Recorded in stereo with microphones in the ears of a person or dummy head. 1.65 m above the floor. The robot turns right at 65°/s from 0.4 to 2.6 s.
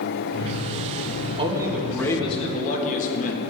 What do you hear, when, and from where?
1.4 s a man speaking: 30° right, 1.9 m; by 3.4 s 50° left, 1.9 m